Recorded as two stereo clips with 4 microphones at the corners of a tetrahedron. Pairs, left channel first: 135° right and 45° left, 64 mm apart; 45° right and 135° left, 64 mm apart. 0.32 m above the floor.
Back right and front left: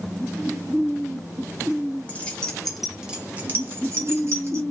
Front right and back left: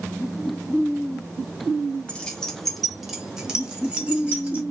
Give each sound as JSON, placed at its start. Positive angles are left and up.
{"t": 2.1, "sound": "keys jangling", "azimuth_deg": -100, "distance_m": 0.8}